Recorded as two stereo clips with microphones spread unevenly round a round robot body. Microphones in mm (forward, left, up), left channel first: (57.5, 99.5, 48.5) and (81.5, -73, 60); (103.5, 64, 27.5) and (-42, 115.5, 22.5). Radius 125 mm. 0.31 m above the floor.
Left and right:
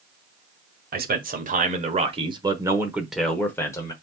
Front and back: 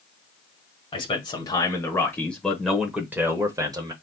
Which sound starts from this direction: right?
A man speaking, at 0.9 s.